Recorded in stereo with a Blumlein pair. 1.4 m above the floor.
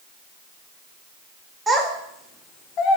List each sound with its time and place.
1.7 s a child speaking: 10° right, 0.8 m; by 3.0 s 40° left, 0.7 m